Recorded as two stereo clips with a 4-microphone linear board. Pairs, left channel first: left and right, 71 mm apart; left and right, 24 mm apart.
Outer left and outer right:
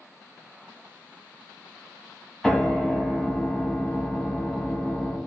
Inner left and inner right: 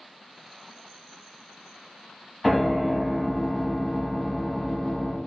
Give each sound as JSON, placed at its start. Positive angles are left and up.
{"t": 2.4, "sound": "a piano", "side_deg": 5, "distance_m": 0.7}